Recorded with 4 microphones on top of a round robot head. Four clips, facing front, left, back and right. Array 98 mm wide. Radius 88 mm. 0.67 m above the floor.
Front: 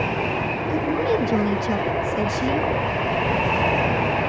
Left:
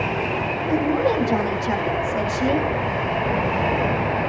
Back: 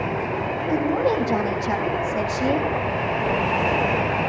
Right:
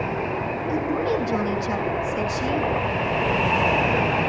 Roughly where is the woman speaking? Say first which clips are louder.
Left 4 dB, back 1 dB; behind left.